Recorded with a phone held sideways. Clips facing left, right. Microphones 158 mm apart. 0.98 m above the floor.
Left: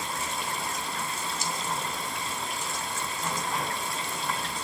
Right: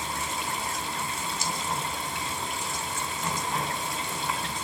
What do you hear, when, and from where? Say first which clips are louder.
0.0 s running water: right 1 dB; centre (ahead or behind), 3.5 m